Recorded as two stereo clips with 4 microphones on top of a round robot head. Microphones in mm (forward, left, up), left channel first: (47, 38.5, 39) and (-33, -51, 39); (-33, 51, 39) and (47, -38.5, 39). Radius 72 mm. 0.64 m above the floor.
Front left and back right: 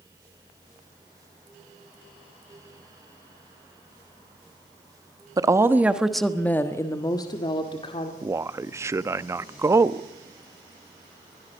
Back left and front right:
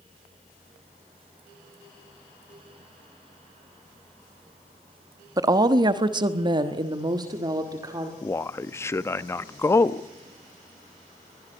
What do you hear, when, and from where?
5.4 s a woman speaking: 90° right, 1.2 m; by 8.1 s 10° left, 2 m
8.2 s a man speaking: straight behind, 0.6 m